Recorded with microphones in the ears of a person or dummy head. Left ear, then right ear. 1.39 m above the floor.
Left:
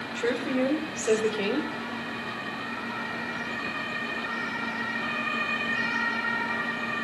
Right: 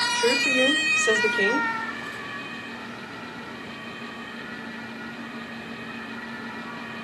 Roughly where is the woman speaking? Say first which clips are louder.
Right 4 dB; right.